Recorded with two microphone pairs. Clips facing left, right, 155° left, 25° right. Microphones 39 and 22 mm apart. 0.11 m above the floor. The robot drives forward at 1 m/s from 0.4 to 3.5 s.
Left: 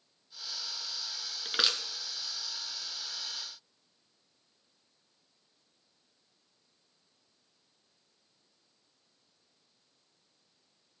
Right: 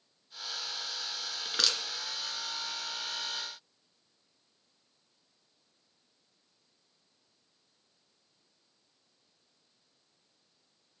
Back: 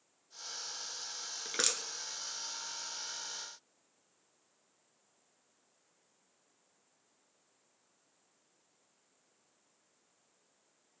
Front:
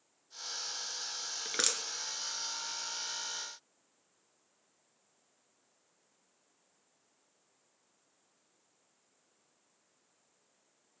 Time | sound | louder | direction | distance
1.4 | crushing | left 1 dB, front 1 dB | 35° left | 1.6 m